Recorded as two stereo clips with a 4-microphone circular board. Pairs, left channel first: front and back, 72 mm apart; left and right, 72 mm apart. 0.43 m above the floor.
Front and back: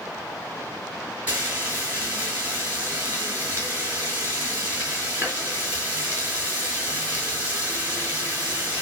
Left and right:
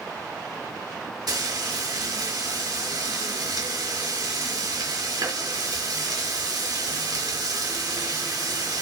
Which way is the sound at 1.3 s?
115° right.